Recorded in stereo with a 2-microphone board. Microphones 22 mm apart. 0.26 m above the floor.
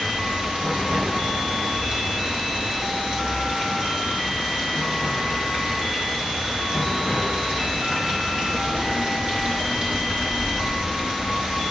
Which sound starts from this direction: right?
Running water, at 0.0 s.